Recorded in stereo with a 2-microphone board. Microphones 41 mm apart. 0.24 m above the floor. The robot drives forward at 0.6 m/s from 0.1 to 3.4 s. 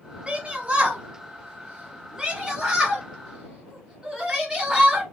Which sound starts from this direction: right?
A shout, at 0.3 s.